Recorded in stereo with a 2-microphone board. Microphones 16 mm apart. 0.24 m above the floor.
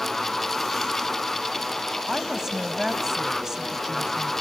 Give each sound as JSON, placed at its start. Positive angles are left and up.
{"t": 2.1, "sound": "a woman speaking", "side_deg": -25, "distance_m": 1.6}